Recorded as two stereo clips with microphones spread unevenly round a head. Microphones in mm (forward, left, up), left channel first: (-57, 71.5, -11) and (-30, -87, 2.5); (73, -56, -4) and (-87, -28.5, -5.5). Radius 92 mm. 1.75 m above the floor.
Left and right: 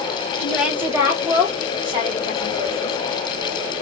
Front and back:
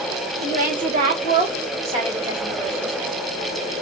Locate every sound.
0.4 s a woman speaking: 175° right, 1.1 m; by 3.0 s 130° right, 3 m